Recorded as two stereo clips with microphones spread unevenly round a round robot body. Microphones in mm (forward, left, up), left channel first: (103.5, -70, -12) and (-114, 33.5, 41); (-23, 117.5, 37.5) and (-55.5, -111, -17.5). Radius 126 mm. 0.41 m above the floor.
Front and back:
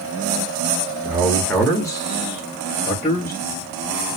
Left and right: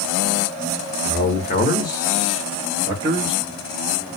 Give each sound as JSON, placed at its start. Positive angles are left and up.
{"t": 1.1, "sound": "a man speaking", "azimuth_deg": 55, "distance_m": 0.9}